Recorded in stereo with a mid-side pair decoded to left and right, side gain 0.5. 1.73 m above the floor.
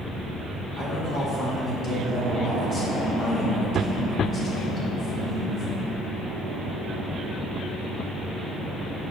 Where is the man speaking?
45° left, 1.4 m.